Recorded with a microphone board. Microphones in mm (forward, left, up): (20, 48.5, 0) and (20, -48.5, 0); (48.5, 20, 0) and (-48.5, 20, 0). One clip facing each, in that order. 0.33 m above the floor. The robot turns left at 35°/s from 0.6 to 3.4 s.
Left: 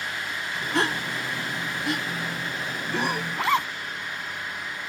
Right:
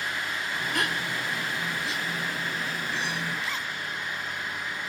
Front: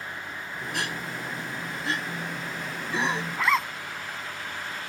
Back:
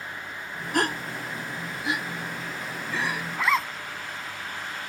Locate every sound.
0.7 s a gasp: 145° left; by 3.2 s 60° left
3.3 s a zipper: 95° left; by 3.7 s 90° left